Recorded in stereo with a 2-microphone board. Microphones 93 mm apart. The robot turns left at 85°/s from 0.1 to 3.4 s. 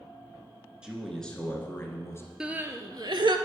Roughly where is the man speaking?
Behind.